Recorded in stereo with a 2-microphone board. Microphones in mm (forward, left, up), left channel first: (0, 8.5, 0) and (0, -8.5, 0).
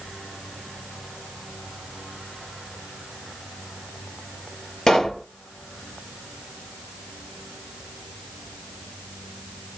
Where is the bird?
No bird in this recording.